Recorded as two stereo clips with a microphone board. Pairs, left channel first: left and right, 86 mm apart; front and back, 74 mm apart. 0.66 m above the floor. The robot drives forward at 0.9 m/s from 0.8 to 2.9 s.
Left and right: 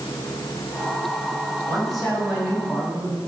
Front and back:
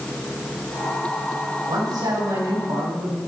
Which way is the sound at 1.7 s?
Straight behind.